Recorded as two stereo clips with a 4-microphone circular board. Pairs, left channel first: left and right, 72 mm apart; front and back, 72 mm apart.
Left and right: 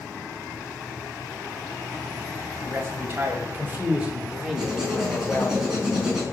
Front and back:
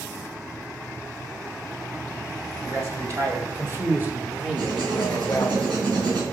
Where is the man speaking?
145° right, 2.5 m; by 5.6 s 40° left, 1.4 m.